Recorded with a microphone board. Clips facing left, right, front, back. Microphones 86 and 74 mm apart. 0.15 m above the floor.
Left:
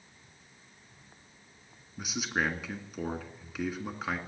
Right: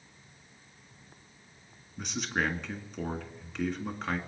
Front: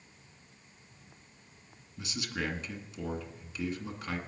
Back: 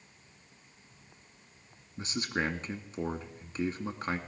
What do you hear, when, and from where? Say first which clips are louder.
2.0 s a man speaking: even, back 4 dB; 170° left, 1.8 m